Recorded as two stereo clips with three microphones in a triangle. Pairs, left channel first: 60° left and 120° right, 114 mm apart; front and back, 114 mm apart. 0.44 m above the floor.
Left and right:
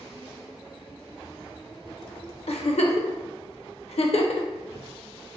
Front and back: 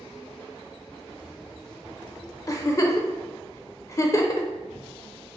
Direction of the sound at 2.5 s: 60° left.